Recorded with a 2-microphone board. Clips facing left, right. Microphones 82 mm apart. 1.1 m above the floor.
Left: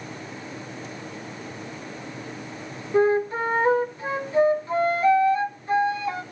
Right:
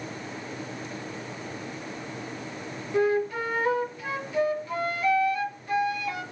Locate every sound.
2.9 s a flute: 30° left (ahead or behind), 1.0 m